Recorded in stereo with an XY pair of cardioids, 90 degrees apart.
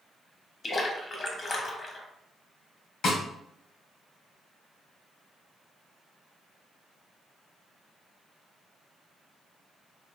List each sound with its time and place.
0.6 s a splash: 40° left, 0.7 m
3.0 s a snare drum: 70° left, 1.1 m